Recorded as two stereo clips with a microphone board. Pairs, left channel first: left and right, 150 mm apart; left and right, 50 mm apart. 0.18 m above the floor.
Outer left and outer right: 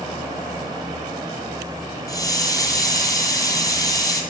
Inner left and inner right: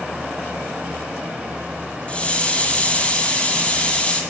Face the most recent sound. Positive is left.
turn(degrees=25)  # may be behind; listen again after turning